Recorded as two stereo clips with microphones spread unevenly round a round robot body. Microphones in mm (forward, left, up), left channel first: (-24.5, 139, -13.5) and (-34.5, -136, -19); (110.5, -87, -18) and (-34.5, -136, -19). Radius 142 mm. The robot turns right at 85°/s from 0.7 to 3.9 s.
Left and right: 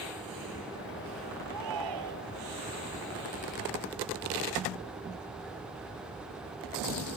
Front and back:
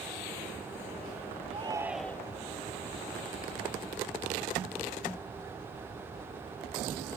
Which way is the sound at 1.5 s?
115° right.